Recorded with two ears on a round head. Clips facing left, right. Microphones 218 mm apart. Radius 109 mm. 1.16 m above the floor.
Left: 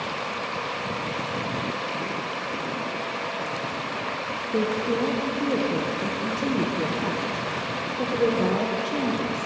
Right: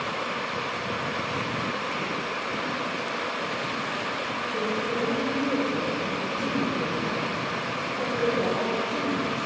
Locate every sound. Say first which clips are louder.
4.5 s a woman speaking: left 5 dB; 50° left (ahead or behind), 0.9 m